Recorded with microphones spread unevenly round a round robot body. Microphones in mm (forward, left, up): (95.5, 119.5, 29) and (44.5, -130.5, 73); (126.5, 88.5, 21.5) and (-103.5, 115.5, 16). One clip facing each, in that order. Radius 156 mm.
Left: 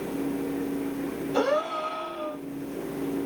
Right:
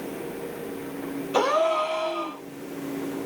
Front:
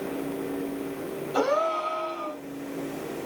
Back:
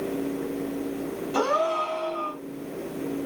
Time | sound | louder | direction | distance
1.3 | a gasp | right 3 dB, front 1 dB | 130° right | 2.5 m